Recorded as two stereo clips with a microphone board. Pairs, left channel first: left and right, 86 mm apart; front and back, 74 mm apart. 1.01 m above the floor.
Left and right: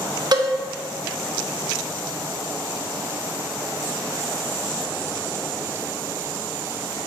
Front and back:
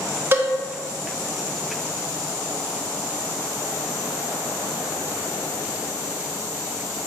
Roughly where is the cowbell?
Behind right.